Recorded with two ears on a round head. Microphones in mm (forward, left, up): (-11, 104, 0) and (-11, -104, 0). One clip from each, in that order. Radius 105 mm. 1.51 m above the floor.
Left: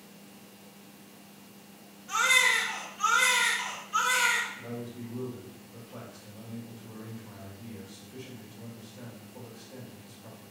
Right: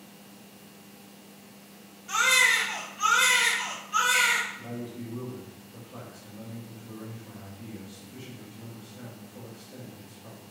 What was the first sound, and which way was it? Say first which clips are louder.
A baby crying: right 2 dB; 15° right (ahead or behind).